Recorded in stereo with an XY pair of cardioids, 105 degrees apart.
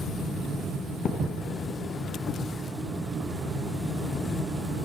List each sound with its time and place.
1.1 s a thud: 60° left, 3.5 m